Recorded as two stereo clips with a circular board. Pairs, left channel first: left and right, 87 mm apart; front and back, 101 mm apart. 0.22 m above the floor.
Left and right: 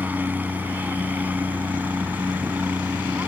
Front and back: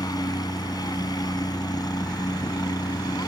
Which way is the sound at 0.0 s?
25° right.